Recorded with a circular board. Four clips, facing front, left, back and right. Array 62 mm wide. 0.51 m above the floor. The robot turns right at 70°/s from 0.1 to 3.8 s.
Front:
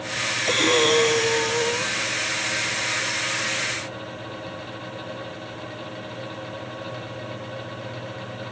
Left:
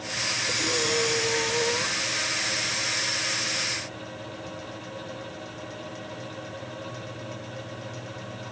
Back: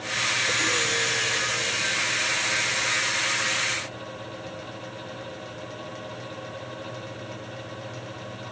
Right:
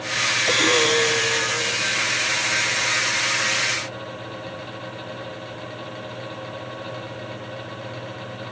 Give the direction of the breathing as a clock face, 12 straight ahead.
2 o'clock.